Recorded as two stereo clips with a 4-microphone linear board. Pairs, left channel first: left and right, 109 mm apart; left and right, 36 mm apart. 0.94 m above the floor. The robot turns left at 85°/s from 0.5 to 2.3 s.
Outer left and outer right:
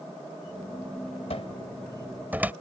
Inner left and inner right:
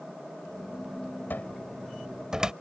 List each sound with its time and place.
1.3 s a cupboard door: 65° left (ahead or behind); by 2.5 s 15° right (ahead or behind)